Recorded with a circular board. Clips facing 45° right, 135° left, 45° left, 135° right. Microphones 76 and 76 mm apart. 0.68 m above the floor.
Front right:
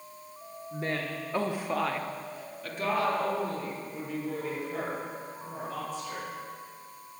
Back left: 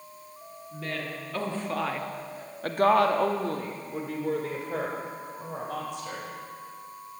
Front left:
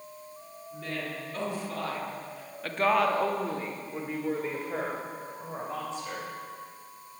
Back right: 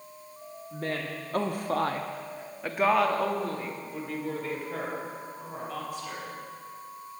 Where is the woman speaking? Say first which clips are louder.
Front right 2 dB, back right 3 dB; 100° right, 1.4 m; by 6.3 s 105° left, 3 m.